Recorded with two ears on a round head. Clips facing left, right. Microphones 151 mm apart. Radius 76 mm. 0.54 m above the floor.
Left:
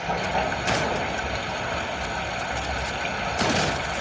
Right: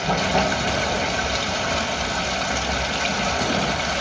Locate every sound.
0.0 s running water: 50° right (ahead or behind), 1.6 m